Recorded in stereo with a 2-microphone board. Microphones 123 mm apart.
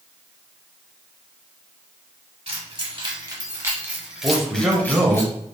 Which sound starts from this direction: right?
Keys jangling, at 2.5 s.